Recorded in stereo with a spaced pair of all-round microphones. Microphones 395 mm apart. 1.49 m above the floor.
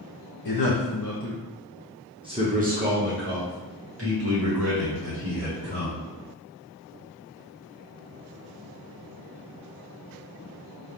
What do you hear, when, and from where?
0.5 s a man speaking: 70° left (ahead or behind), 0.7 m; by 6.0 s 45° right (ahead or behind), 2.5 m